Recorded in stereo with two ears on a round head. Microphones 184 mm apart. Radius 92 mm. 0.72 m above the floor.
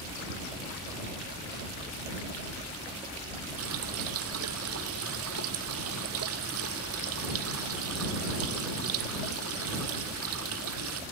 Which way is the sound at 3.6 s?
80° right.